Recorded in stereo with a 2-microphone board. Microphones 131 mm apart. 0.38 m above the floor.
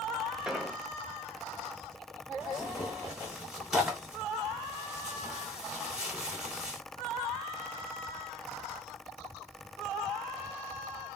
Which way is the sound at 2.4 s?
5° right (ahead or behind).